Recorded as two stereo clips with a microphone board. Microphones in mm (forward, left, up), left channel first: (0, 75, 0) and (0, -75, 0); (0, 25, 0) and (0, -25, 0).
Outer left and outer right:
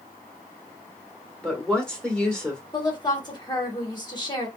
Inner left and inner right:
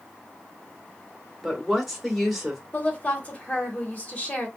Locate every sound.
1.4 s a woman speaking: 5° left (ahead or behind), 1.9 m
2.7 s a woman speaking: 30° left (ahead or behind), 1.5 m